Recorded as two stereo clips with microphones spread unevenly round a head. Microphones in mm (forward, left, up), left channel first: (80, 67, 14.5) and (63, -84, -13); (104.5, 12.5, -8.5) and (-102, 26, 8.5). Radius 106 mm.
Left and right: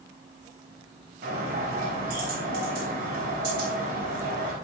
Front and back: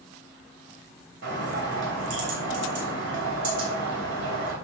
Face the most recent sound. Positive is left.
turn(degrees=-145)